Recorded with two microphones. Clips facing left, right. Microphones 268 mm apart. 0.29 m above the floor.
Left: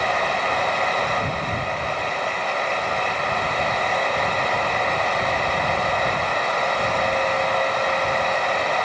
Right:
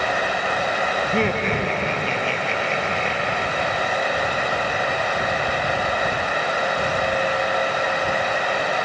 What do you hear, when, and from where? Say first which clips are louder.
1.0 s laughter: right 6 dB; 80° right; by 3.9 s 70° right (ahead or behind)